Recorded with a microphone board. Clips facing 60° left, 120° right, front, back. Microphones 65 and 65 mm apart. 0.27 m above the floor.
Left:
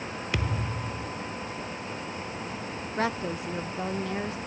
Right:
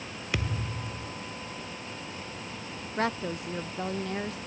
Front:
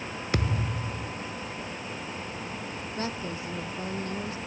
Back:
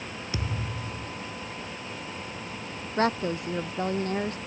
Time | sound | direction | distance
0.3 | a thud | 30° right | ?
3.0 | a woman speaking | 150° left | ?